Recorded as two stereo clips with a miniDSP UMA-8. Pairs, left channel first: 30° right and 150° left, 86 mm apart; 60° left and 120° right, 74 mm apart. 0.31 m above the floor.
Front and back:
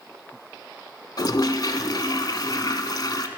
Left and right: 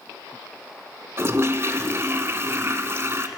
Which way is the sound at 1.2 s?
70° right.